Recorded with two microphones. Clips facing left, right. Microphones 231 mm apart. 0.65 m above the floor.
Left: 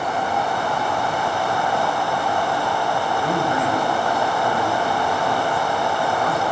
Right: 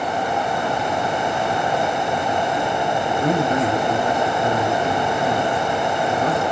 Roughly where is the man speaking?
Right.